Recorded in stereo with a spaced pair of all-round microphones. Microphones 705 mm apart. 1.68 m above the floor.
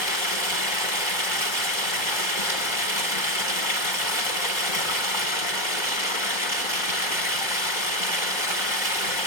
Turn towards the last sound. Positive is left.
turn(degrees=40)  # may be behind; listen again after turning